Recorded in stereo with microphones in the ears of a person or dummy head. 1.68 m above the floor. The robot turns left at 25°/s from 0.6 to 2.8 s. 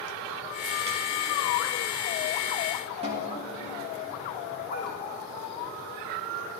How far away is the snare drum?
About 2.5 m.